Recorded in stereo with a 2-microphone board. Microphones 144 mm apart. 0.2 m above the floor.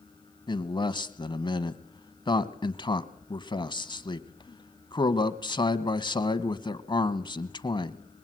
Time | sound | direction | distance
0.5 | a man speaking | 30° left (ahead or behind) | 1.2 m